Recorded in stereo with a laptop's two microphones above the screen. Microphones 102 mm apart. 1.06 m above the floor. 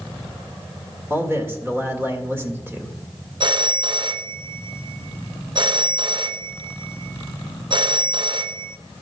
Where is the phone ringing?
50° right (ahead or behind), 0.5 m.